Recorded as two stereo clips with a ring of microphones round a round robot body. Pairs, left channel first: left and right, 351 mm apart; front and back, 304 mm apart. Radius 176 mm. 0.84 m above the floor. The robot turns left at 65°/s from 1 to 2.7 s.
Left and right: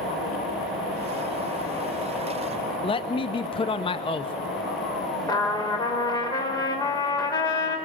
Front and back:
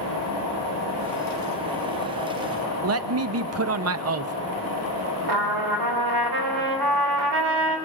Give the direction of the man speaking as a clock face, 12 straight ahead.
7 o'clock.